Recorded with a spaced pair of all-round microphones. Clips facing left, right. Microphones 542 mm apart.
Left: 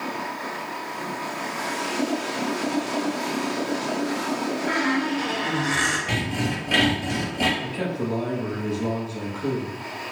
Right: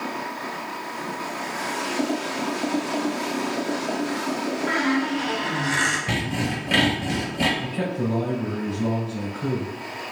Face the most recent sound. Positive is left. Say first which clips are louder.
# right 1 dB
turn(degrees=-50)  # may be behind; listen again after turning